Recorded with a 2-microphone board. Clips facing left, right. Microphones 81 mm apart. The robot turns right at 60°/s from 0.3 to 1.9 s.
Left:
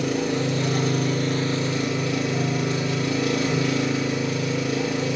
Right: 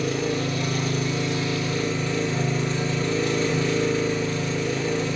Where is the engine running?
75° left, 3.5 m; by 5.2 s 170° left, 3.5 m.